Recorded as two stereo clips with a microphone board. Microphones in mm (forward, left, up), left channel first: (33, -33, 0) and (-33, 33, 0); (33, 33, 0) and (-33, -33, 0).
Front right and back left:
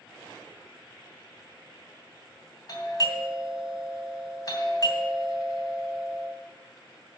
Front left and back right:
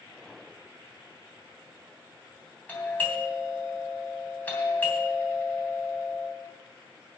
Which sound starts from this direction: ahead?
A doorbell, at 2.7 s.